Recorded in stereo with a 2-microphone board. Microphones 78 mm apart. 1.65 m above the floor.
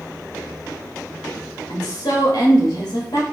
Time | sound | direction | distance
1.7 | a woman speaking | 55° left (ahead or behind) | 0.9 m